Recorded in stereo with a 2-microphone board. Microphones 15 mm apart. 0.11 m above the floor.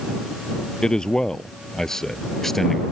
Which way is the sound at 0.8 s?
55° left (ahead or behind).